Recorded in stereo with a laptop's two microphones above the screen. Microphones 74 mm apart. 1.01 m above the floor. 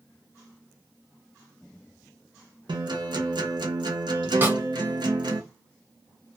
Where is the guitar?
80° right, 0.7 m.